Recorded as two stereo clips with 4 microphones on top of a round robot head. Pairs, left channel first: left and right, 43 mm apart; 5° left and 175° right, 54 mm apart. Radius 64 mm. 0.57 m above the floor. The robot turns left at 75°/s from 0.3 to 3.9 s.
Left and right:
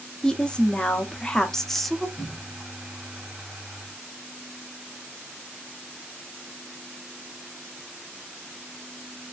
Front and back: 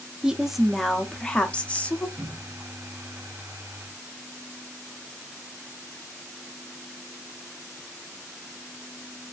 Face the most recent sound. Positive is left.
turn(degrees=25)